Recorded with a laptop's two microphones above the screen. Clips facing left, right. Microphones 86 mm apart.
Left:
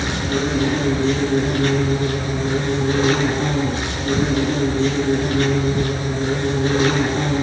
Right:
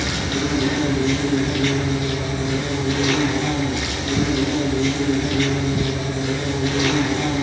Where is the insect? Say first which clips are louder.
Left 2 dB; 35° left (ahead or behind), 9 m.